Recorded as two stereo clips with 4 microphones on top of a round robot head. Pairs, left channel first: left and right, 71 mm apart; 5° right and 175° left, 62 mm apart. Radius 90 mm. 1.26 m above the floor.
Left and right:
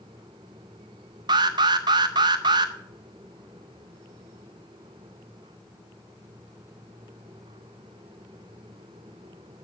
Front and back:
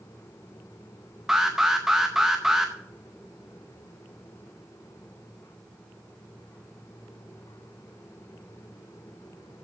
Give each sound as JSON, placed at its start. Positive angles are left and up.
{"t": 1.3, "sound": "an alarm", "azimuth_deg": -100, "distance_m": 0.6}